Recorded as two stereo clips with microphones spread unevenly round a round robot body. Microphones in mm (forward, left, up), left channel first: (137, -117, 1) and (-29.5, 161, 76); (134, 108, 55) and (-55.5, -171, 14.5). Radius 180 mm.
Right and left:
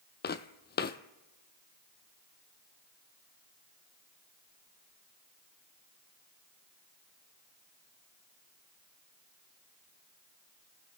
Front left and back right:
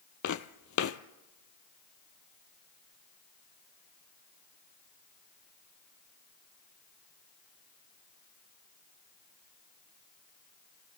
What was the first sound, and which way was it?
Footsteps, 10° left.